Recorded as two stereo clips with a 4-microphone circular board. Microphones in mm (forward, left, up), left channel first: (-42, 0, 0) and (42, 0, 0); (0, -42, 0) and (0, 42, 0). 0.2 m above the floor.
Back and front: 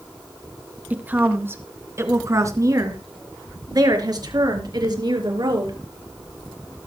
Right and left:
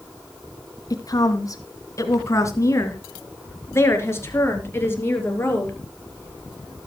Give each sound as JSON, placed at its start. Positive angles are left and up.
{"t": 0.9, "sound": "a woman speaking", "azimuth_deg": -70, "distance_m": 2.5}